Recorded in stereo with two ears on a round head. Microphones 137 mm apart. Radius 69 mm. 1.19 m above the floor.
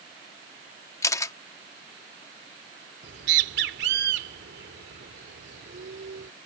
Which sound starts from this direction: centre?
A camera shutter, at 1.0 s.